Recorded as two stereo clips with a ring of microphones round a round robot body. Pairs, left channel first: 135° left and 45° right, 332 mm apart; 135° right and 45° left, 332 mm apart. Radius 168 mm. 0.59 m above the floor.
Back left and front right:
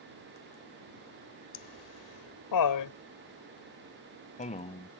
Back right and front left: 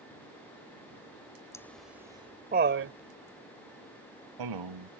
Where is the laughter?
145° left; by 4.9 s 60° left.